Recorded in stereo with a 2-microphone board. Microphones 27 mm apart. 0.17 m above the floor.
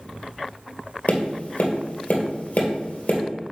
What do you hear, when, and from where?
1.1 s tapping: 65° left (ahead or behind), 2.5 m